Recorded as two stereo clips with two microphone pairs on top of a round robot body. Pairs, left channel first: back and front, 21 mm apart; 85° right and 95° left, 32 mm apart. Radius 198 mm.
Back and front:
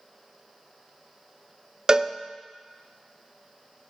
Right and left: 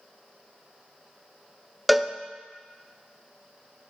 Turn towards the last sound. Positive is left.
turn(degrees=10)